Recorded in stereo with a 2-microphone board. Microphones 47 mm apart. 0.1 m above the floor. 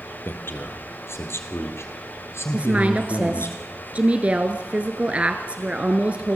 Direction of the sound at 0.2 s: 50° left (ahead or behind).